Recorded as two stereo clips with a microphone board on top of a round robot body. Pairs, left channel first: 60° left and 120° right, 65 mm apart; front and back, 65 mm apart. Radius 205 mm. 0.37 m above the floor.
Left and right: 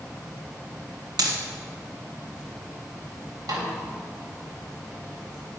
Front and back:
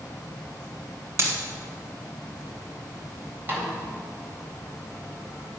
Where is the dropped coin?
130° right, 1.7 m.